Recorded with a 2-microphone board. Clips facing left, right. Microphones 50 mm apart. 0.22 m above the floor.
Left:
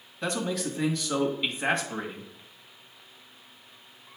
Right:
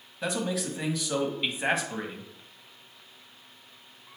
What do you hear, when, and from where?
0.2 s a man speaking: 5° right (ahead or behind), 1.4 m